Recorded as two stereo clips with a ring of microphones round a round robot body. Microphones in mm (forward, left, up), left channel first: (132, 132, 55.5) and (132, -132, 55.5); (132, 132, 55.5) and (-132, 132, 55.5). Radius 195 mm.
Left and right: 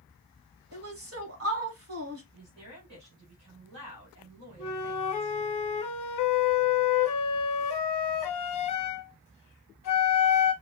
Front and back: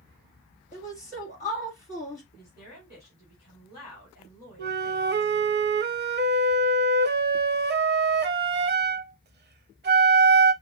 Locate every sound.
0.7 s a woman speaking: 65° right, 2.0 m
2.3 s a woman speaking: 80° right, 3 m
4.6 s a flute: 125° left, 0.6 m